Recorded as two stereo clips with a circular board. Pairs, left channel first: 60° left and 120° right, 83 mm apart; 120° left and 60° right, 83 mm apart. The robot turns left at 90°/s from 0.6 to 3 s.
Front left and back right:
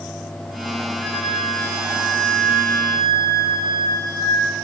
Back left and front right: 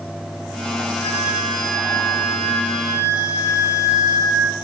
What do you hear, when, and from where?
1.0 s a flute: 165° right, 6 m; by 4.5 s 15° left, 6 m